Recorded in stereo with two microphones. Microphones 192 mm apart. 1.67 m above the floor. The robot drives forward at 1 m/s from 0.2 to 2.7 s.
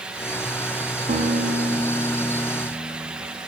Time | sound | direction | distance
1.1 | a guitar | 50° right (ahead or behind) | 3 m